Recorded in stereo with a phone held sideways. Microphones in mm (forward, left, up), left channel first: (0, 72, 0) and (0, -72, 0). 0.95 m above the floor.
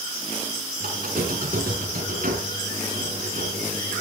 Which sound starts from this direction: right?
A squeak, at 0.8 s.